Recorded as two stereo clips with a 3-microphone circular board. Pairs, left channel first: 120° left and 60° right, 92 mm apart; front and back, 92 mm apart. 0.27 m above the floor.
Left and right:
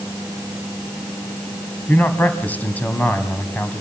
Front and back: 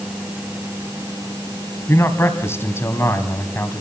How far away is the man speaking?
About 2.5 m.